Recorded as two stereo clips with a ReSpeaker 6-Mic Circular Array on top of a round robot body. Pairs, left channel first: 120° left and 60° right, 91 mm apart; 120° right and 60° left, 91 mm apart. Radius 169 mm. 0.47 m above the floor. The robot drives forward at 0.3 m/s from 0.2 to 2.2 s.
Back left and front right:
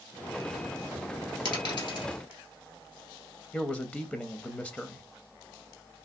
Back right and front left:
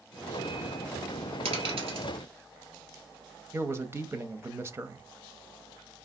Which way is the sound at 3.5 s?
60° left.